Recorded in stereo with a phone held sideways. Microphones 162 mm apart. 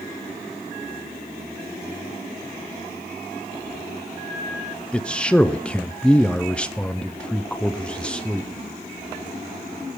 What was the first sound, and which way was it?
A man speaking, 5° left (ahead or behind).